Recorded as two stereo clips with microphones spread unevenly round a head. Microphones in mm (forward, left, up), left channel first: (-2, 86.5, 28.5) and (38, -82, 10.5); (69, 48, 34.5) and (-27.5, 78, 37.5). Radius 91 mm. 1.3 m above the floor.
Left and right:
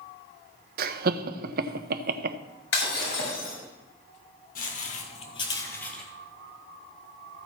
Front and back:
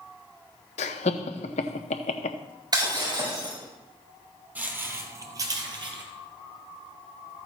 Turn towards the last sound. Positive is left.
turn(degrees=-175)